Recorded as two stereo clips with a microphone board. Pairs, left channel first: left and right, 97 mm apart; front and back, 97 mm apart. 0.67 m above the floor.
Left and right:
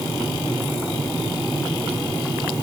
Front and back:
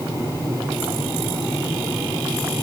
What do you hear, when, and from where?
Only background noise.